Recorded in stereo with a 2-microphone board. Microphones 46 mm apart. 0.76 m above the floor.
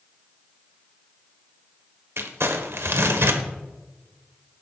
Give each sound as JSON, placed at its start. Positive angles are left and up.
{"t": 2.2, "sound": "crumpling", "side_deg": -70, "distance_m": 1.4}